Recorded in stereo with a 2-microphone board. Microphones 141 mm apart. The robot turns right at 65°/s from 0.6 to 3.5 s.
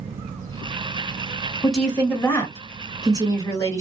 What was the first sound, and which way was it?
A woman speaking, centre (ahead or behind).